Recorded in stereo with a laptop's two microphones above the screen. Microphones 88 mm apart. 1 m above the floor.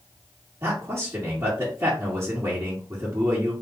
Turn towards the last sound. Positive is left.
turn(degrees=-35)  # may be behind; listen again after turning